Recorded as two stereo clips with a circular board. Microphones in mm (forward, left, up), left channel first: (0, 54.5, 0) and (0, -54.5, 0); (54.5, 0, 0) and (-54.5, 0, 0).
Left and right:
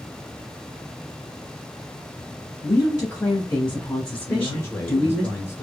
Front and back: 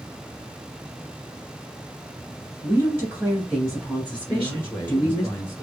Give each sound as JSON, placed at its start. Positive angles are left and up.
{"t": 2.6, "sound": "a woman speaking", "azimuth_deg": 145, "distance_m": 1.5}
{"t": 4.3, "sound": "a man speaking", "azimuth_deg": 45, "distance_m": 1.2}